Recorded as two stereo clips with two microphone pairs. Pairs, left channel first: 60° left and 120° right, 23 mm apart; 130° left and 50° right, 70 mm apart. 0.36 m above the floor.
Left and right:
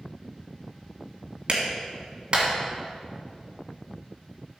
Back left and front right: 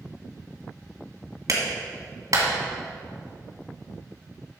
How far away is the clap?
About 2 m.